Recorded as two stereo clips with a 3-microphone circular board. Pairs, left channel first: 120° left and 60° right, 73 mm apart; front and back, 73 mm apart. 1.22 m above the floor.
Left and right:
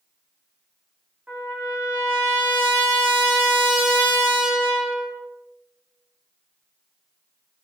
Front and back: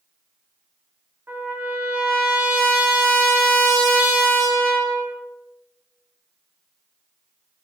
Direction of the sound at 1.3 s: 125° right.